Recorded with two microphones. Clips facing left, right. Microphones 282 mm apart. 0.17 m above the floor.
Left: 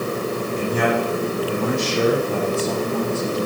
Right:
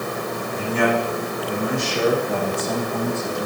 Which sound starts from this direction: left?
A man speaking, at 0.6 s.